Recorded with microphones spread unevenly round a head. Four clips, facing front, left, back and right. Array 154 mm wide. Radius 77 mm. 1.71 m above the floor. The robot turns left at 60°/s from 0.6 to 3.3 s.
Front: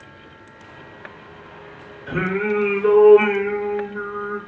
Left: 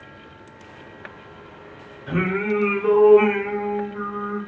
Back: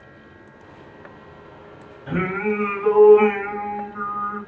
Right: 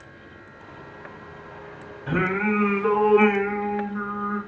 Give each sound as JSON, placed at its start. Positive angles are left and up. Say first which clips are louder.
{"t": 2.1, "sound": "singing", "louder": "left 1 dB, front 1 dB", "azimuth_deg": -110, "distance_m": 3.0}